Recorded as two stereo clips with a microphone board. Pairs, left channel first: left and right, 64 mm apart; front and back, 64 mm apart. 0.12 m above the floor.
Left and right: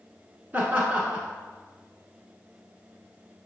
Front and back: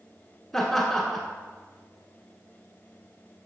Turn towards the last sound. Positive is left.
turn(degrees=-80)